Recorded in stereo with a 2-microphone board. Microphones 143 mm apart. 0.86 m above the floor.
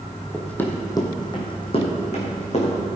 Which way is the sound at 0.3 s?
5° left (ahead or behind).